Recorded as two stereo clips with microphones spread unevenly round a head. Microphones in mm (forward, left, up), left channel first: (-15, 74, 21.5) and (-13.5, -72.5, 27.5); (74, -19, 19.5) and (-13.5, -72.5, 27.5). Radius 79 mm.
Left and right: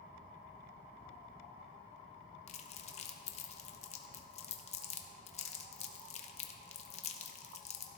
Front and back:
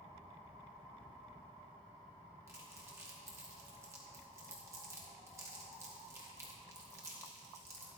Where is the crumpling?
140° left, 0.9 m.